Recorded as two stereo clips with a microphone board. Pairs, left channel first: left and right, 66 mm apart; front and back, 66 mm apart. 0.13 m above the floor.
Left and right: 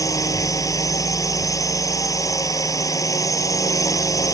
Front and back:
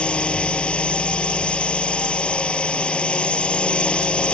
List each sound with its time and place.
0.0 s a drone: 70° left